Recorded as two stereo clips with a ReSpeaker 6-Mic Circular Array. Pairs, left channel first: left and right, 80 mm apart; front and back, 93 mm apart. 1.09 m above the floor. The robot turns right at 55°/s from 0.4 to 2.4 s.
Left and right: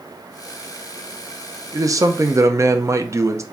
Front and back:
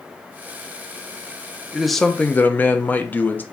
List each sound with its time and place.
1.7 s a man speaking: 100° right, 0.6 m; by 3.4 s 60° right, 0.6 m